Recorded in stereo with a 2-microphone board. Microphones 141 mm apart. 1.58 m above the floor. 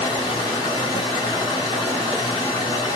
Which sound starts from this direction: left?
Running water, at 0.0 s.